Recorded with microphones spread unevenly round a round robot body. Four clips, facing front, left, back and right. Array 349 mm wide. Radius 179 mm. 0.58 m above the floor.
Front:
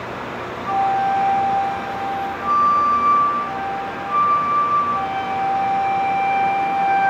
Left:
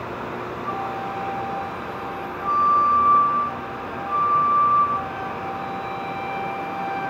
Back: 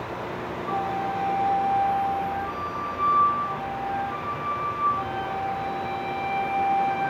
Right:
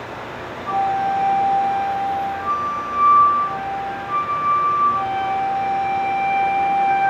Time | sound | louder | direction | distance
0.7 | a flute | right 11 dB, front 10 dB | 20° left | 1.5 m